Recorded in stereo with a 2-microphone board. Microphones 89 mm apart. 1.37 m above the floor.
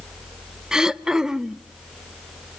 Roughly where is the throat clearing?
Centre.